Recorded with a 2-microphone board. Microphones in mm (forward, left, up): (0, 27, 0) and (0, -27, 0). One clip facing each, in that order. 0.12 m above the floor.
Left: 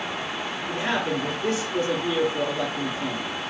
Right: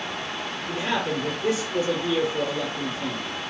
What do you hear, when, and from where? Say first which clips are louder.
0.7 s a man speaking: even; 35° left (ahead or behind), 1.2 m